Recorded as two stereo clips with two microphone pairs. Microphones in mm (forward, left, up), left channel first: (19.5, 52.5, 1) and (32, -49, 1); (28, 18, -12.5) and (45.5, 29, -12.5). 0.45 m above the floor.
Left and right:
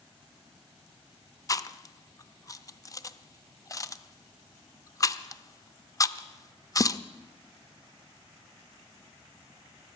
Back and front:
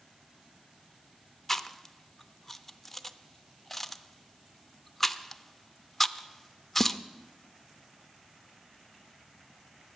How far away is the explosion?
No explosion in this recording.